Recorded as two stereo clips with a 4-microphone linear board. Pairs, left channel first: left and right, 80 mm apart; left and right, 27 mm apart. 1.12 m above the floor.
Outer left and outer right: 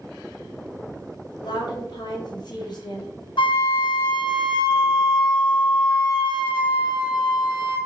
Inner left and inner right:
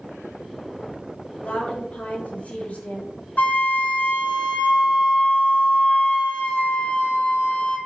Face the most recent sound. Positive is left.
turn(degrees=80)